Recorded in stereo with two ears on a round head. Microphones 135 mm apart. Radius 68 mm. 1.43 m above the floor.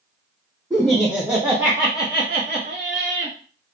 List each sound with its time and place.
0.7 s laughter: 5° left (ahead or behind), 1.1 m; by 3.4 s 65° right (ahead or behind), 1.3 m